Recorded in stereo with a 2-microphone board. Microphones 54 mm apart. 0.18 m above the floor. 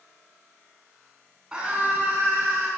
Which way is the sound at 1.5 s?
20° right (ahead or behind).